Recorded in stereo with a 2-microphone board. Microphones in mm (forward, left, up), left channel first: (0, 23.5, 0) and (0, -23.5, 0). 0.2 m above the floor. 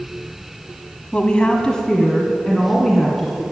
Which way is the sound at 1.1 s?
25° left (ahead or behind).